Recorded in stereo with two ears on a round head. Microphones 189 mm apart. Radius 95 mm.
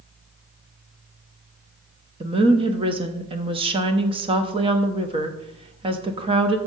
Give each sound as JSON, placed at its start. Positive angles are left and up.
{"t": 2.2, "sound": "a woman speaking", "side_deg": -25, "distance_m": 0.7}